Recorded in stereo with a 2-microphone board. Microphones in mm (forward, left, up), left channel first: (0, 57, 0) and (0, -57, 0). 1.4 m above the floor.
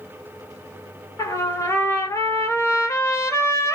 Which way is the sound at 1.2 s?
25° left (ahead or behind).